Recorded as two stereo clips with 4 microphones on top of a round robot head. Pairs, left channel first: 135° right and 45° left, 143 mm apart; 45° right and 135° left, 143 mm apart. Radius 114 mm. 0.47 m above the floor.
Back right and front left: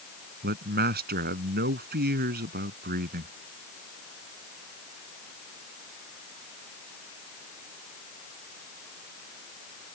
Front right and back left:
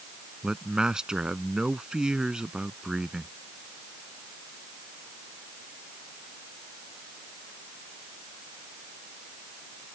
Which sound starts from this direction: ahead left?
A man speaking, at 0.4 s.